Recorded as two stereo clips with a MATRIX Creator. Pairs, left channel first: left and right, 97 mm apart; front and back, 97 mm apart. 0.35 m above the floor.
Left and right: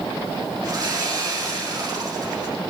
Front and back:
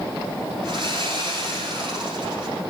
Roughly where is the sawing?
Behind right.